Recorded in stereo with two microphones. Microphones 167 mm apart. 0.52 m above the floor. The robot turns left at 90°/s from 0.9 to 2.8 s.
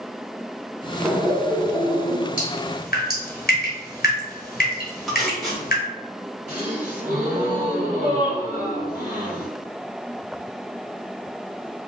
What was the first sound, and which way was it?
Laughter, 5° right (ahead or behind).